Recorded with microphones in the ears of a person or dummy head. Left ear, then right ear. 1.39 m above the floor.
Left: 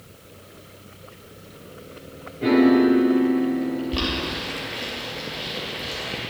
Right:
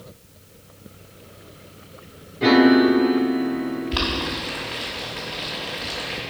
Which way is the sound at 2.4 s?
40° right (ahead or behind).